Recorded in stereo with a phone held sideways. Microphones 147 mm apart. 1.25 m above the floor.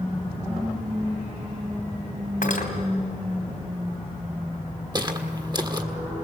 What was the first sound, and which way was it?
Cutlery clinking, 80° left.